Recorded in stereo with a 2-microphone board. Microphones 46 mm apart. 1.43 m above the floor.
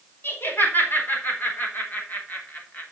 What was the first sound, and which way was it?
Laughter, 50° left (ahead or behind).